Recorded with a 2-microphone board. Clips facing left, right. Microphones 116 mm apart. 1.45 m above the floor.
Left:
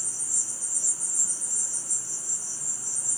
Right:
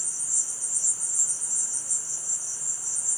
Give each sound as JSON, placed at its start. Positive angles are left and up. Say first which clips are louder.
{"t": 0.0, "sound": "an insect", "louder": "left 2 dB", "side_deg": 50, "distance_m": 2.5}